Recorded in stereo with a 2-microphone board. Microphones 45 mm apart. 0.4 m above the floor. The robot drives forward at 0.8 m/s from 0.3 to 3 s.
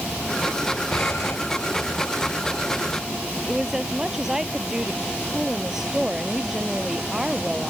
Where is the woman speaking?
10° right (ahead or behind).